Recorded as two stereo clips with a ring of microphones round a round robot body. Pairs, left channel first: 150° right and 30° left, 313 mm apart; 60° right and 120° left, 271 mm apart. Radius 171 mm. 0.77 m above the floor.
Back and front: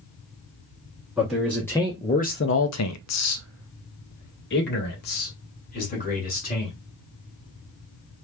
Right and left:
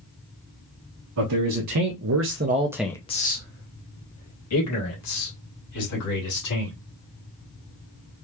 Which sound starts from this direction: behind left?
A man speaking, at 1.2 s.